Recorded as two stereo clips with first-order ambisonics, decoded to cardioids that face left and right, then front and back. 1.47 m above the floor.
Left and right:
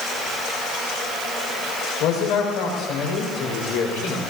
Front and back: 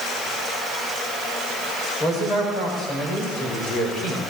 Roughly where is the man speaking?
Left.